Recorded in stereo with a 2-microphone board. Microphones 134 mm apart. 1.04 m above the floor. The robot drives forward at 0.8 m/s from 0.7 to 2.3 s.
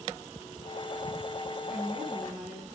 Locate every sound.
1.7 s a woman speaking: 20° right (ahead or behind), 9 m